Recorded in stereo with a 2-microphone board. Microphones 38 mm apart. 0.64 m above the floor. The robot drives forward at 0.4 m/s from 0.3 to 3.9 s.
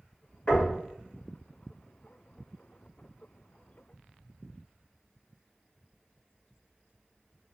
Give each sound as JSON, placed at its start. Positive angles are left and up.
{"t": 0.5, "sound": "knocking", "side_deg": 20, "distance_m": 1.9}